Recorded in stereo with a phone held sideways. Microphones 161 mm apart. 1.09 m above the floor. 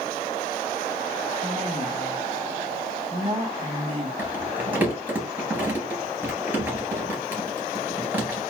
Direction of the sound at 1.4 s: 40° right (ahead or behind).